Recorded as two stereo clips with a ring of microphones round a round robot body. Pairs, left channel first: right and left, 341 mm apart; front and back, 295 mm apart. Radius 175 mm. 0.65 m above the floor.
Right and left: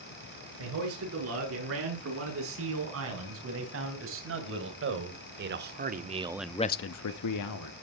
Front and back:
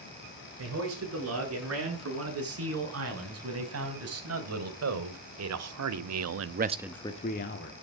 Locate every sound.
0.6 s a man speaking: 140° left, 8.5 m; by 7.7 s 55° right, 1.6 m